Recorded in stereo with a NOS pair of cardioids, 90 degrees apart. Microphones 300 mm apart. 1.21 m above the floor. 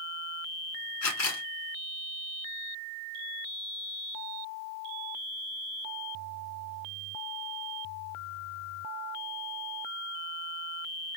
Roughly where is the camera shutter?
Ahead left.